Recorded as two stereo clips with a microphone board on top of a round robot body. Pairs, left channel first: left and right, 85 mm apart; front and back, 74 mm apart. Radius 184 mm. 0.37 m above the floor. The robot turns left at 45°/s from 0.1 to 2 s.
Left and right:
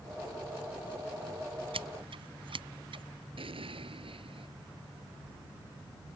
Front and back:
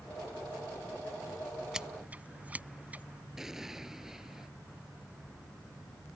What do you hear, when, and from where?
1.7 s scissors: 95° right; by 3.0 s 110° right
3.4 s an explosion: 95° right